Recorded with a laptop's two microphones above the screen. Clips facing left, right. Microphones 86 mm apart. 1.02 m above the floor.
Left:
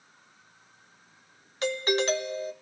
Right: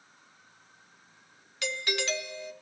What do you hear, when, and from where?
1.6 s a doorbell: 40° left (ahead or behind), 1.2 m